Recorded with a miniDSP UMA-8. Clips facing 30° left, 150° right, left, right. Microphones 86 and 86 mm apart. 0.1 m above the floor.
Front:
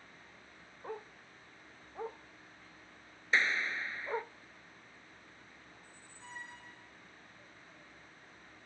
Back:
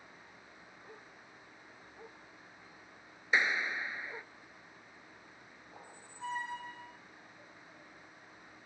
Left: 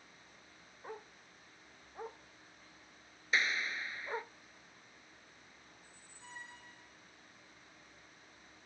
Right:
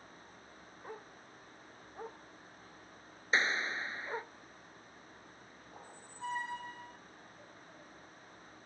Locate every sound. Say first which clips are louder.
0.8 s a dog barking: front 13 dB, even; straight ahead
3.3 s a clap: back 1 dB, right 2 dB; 90° right
5.7 s a squeak: back 5 dB, right 9 dB; 120° right